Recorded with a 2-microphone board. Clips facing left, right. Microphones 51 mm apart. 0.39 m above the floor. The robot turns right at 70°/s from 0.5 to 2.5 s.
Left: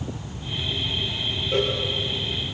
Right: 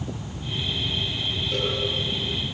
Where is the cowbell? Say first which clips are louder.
Left 5 dB; 20° left (ahead or behind), 5 m; by 1.8 s 40° left (ahead or behind), 5 m.